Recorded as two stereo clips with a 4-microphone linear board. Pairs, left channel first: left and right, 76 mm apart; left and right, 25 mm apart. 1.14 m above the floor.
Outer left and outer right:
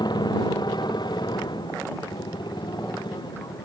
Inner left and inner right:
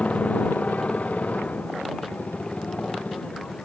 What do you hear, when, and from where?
0.0 s a motorcycle: 60° left (ahead or behind)